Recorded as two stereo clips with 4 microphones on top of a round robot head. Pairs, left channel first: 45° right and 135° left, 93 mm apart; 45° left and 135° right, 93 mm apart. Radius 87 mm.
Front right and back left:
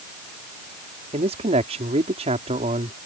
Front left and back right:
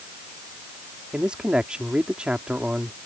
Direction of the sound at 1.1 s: 145° left.